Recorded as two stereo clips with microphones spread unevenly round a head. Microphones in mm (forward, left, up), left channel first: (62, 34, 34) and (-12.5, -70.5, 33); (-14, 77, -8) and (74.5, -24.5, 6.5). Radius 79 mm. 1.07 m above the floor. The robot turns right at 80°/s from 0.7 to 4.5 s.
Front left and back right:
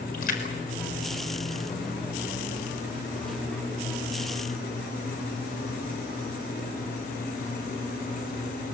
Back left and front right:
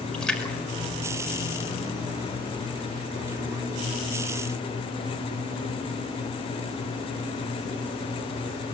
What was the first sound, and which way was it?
A splash, 45° left.